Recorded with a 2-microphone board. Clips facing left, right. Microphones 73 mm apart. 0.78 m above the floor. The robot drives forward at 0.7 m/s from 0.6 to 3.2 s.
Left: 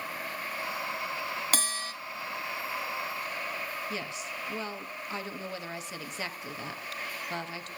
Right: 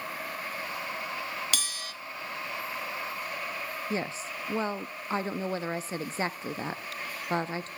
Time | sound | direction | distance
1.5 | a bell | 40° left (ahead or behind) | 1.2 m
3.9 | a woman speaking | 35° right (ahead or behind) | 0.7 m